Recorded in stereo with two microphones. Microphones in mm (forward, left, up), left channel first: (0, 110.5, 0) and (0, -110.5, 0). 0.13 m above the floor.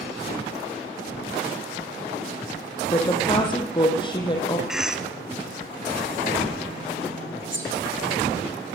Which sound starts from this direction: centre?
A cough, at 4.7 s.